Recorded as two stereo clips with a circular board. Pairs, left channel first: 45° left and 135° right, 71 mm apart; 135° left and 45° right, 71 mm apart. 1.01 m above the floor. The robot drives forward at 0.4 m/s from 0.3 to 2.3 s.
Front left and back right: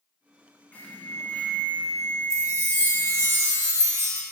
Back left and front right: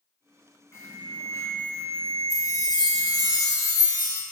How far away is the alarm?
About 2 m.